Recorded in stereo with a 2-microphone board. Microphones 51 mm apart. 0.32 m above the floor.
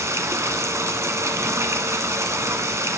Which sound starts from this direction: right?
Running water, at 0.0 s.